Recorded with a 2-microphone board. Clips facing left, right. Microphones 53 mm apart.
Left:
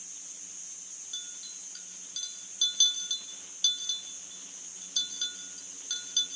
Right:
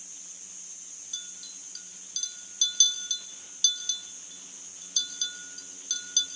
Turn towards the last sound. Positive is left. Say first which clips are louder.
# even
turn(degrees=10)  # may be behind; listen again after turning